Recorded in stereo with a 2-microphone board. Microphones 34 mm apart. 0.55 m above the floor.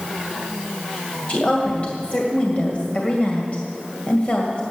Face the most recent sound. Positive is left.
turn(degrees=40)  # may be behind; listen again after turning